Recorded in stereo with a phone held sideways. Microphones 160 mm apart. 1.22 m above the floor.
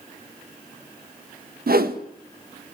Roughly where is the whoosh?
Right.